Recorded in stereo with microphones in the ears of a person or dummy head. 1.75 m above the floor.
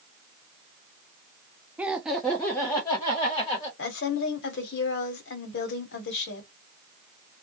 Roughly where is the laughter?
Centre.